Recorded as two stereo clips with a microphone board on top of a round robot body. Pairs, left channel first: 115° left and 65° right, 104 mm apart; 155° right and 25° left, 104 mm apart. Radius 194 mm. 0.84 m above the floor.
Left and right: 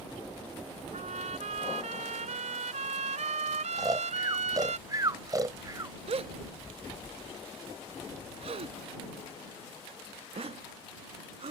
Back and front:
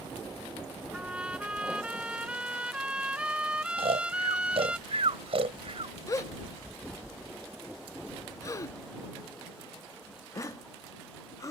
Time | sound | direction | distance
0.9 | a trumpet | 60° right | ?
3.8 | snoring | 10° right | ?
6.1 | a gasp | 95° right | ?